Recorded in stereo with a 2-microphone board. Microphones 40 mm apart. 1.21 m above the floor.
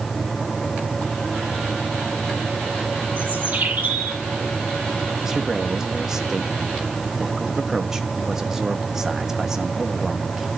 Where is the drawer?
No drawer in this recording.